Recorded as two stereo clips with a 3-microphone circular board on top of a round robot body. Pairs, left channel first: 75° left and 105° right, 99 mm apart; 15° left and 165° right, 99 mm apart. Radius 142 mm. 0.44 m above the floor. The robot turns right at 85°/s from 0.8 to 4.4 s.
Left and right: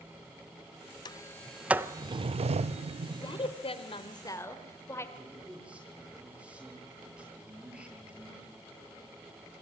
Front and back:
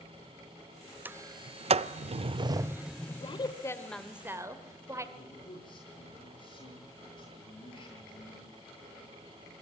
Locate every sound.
1.1 s a sliding door: 120° left, 0.6 m; by 3.5 s 25° right, 0.6 m
3.1 s a woman speaking: 25° left, 2 m; by 5.0 s 135° left, 2 m
5.2 s a man speaking: 25° right, 9.5 m